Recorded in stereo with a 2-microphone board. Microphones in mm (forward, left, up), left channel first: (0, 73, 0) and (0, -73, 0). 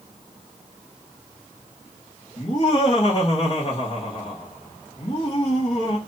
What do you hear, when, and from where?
2.4 s laughter: 55° left (ahead or behind), 1.8 m